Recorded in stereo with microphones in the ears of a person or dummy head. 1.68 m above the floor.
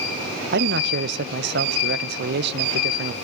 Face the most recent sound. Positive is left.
turn(degrees=-60)  # may be behind; listen again after turning